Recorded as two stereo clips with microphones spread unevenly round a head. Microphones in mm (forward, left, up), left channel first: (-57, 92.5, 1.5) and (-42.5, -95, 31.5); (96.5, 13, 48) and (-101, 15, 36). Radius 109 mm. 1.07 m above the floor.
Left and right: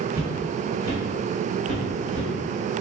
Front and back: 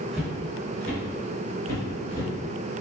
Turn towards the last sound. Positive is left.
turn(degrees=60)